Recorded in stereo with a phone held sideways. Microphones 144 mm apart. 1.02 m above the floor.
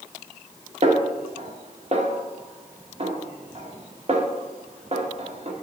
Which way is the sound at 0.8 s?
50° right (ahead or behind).